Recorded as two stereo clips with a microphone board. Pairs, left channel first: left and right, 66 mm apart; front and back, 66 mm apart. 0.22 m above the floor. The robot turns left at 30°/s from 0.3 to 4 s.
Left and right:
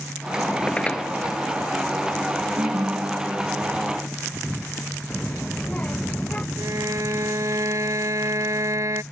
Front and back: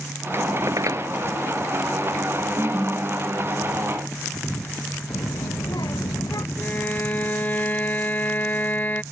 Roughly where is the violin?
Ahead right.